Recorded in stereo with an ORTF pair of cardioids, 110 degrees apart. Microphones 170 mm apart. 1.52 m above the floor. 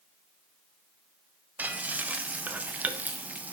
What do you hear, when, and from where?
1.6 s frying: 10° right, 0.7 m